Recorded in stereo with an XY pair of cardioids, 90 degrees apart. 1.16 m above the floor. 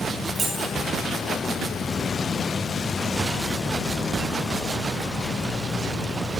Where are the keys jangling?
45° right, 5.5 m.